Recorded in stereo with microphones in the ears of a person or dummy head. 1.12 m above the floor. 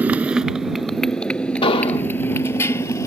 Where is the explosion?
35° left (ahead or behind).